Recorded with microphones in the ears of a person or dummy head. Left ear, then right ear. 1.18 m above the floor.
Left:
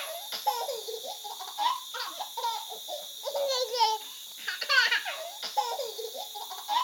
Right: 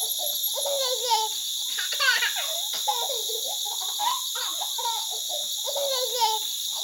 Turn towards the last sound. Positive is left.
turn(degrees=-70)  # may be behind; listen again after turning